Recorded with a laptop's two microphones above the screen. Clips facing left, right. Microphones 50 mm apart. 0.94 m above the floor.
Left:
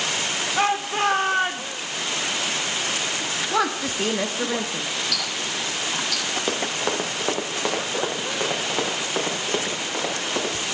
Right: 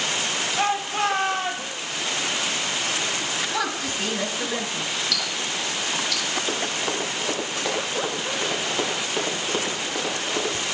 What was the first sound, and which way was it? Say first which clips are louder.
A shout: left 2 dB; 65° left (ahead or behind).